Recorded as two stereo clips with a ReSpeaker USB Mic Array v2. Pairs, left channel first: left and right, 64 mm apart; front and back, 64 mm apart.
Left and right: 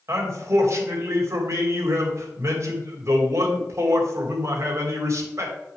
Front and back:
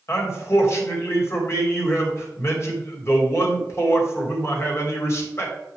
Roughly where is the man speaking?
Ahead right.